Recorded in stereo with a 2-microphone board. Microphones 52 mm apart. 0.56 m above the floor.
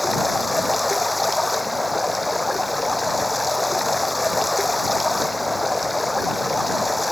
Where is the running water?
Centre (ahead or behind).